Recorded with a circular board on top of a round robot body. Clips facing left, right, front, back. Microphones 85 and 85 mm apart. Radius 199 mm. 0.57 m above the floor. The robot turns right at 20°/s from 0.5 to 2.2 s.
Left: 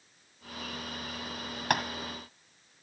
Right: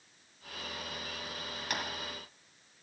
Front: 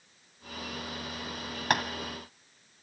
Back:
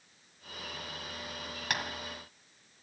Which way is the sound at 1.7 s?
50° left.